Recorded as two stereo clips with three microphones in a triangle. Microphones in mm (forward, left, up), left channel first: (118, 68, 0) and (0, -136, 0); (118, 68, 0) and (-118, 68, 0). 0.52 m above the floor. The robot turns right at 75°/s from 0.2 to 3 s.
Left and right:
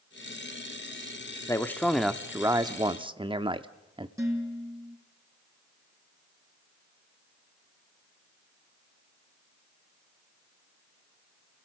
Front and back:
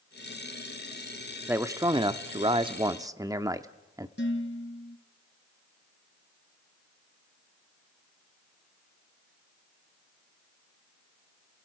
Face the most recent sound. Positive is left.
turn(degrees=-40)